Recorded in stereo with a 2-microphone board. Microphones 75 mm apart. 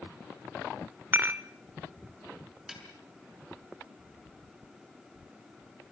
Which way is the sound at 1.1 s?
30° right (ahead or behind).